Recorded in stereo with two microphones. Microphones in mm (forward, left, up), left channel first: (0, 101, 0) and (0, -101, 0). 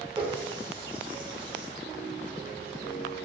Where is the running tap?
25° right (ahead or behind), 0.8 m.